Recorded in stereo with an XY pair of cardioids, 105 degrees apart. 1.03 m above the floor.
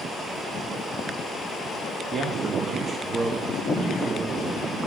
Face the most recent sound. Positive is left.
turn(degrees=-45)